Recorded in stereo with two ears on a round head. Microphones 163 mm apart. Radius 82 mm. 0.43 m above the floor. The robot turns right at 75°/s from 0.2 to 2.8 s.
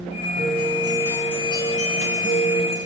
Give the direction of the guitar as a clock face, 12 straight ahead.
2 o'clock.